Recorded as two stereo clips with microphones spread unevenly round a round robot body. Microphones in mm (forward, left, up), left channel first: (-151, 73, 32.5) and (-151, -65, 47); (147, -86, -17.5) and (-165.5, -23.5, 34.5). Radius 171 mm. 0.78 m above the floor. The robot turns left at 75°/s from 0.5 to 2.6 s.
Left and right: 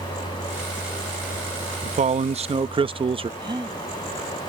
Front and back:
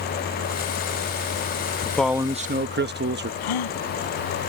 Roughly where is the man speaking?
Right.